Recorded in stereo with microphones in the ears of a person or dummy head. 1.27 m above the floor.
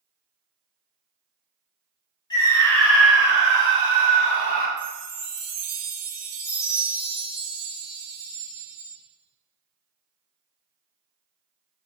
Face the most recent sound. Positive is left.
turn(degrees=-80)